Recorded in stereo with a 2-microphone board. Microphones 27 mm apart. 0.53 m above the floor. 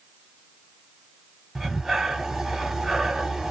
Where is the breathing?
15° right (ahead or behind), 0.9 m.